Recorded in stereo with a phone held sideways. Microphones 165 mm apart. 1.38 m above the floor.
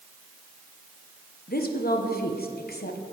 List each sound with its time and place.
1.5 s a woman speaking: 70° left (ahead or behind), 1.0 m